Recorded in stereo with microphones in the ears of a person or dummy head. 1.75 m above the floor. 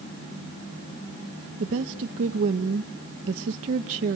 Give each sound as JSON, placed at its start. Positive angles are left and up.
{"t": 1.6, "sound": "a woman speaking", "side_deg": -40, "distance_m": 0.6}